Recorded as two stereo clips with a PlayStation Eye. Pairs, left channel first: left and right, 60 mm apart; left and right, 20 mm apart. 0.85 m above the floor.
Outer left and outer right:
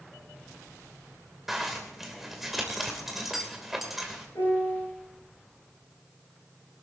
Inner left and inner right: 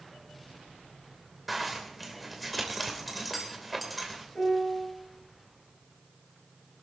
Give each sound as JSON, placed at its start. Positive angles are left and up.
{"t": 1.5, "sound": "a zipper", "side_deg": -5, "distance_m": 2.5}
{"t": 4.3, "sound": "a piano", "side_deg": 75, "distance_m": 8.0}